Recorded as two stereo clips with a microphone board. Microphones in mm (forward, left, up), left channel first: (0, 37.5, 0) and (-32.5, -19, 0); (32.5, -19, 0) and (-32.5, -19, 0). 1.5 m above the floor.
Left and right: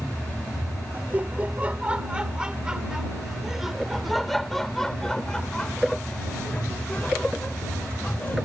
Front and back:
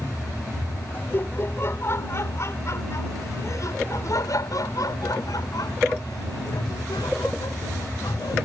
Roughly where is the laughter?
Ahead right.